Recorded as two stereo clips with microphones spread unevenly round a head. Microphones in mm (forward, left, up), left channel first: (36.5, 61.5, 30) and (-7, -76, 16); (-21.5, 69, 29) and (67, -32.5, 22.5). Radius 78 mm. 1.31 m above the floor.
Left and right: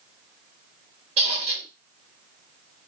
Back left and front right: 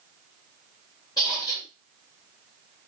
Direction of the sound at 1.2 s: 160° right.